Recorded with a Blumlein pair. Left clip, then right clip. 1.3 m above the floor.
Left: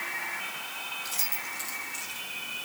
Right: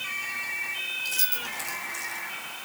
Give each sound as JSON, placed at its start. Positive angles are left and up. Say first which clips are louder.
{"t": 1.1, "sound": "keys jangling", "louder": "right 4 dB", "azimuth_deg": -10, "distance_m": 4.0}